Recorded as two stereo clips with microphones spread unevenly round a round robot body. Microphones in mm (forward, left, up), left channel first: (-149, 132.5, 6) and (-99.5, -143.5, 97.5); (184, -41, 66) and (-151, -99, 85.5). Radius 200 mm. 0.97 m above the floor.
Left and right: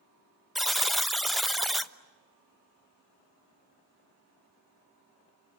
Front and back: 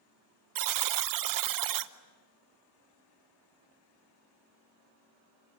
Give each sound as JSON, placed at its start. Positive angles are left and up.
{"t": 0.6, "sound": "a buzzer", "azimuth_deg": 180, "distance_m": 1.1}